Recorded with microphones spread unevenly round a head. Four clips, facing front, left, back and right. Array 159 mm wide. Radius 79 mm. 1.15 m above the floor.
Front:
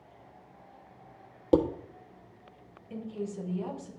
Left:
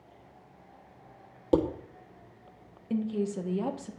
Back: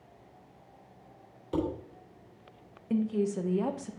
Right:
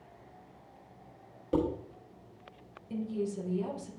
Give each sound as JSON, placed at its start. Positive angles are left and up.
{"t": 1.5, "sound": "dishes clattering", "azimuth_deg": 30, "distance_m": 1.2}
{"t": 2.9, "sound": "a woman speaking", "azimuth_deg": 145, "distance_m": 1.1}